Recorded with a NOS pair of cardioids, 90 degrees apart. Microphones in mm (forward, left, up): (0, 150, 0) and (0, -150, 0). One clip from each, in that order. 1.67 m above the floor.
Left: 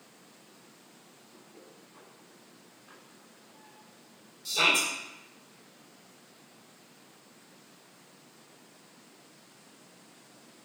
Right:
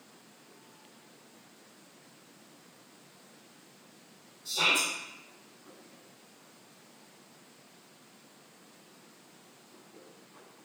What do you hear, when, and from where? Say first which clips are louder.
4.5 s a shout: left 2 dB; 55° left, 1.9 m